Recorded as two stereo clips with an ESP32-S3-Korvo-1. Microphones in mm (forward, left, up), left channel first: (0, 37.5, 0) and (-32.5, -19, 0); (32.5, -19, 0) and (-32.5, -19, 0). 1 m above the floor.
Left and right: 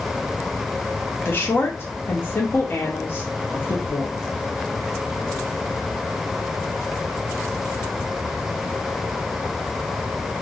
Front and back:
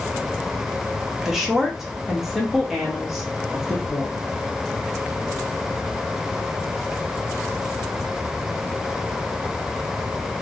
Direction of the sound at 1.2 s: 95° left.